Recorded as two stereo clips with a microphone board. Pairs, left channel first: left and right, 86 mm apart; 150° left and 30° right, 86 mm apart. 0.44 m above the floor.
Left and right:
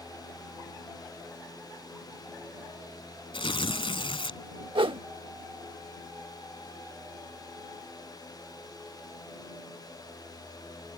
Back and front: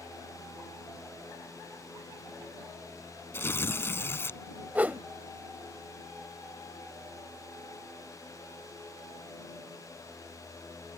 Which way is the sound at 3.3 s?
90° left.